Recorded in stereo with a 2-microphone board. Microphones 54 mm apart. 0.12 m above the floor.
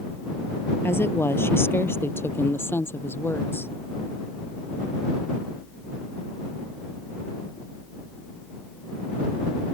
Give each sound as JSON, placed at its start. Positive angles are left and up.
{"t": 0.8, "sound": "a woman speaking", "side_deg": 45}